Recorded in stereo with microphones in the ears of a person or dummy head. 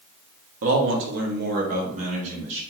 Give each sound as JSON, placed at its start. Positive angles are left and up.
{"t": 0.6, "sound": "a man speaking", "side_deg": -70, "distance_m": 0.8}